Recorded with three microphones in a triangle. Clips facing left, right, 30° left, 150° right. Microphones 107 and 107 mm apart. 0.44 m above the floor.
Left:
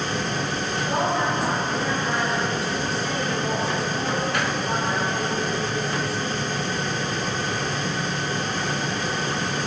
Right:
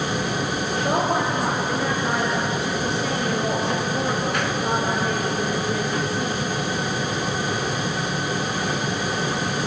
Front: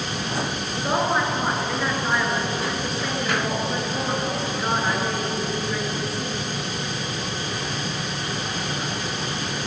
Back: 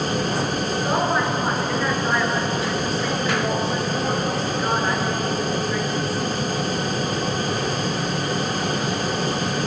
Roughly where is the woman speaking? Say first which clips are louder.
Right 2 dB, even; ahead right.